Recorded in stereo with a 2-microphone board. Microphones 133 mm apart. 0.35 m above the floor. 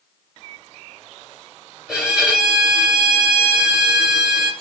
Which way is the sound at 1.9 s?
5° right (ahead or behind).